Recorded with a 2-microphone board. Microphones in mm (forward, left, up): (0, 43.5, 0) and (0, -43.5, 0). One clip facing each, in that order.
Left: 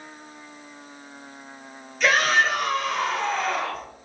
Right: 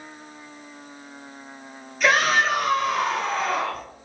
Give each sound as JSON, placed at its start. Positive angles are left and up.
{"t": 2.0, "sound": "a shout", "side_deg": -5, "distance_m": 1.1}